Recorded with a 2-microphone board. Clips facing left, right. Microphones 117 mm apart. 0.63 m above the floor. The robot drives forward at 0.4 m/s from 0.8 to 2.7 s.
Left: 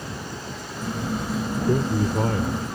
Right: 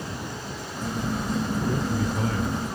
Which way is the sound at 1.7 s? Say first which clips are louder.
Left 4 dB; 50° left (ahead or behind).